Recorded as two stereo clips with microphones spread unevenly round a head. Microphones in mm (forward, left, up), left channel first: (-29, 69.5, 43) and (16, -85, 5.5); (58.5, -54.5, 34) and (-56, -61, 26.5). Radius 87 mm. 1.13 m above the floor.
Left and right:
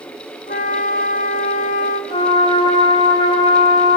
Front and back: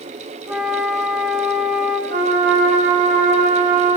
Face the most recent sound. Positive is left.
turn(degrees=170)